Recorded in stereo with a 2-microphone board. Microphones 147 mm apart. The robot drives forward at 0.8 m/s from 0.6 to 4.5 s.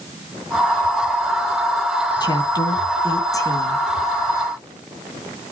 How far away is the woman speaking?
About 2 m.